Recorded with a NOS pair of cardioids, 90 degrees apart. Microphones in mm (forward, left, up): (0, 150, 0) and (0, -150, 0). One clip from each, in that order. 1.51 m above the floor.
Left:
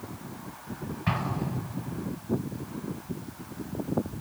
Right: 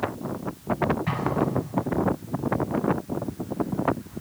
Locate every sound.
1.1 s an explosion: 30° left, 4 m